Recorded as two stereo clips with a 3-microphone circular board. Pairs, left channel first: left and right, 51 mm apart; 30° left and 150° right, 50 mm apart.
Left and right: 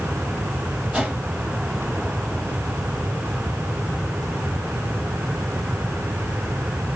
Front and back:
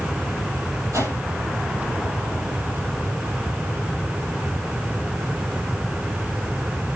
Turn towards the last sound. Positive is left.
turn(degrees=-160)